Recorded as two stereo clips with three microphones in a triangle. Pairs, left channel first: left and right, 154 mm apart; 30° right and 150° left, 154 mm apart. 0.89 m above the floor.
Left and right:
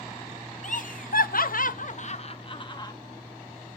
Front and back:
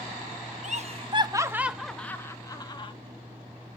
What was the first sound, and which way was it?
Laughter, 120° left.